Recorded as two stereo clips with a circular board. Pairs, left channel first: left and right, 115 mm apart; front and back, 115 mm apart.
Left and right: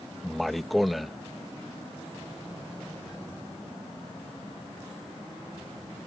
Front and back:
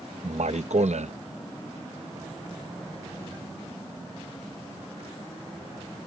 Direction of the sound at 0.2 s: Straight behind.